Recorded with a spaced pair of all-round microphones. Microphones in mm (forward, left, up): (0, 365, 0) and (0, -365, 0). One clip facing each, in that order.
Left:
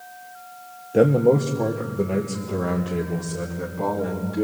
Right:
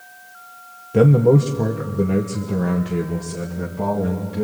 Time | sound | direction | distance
0.9 | a man speaking | 35° right (ahead or behind) | 0.9 m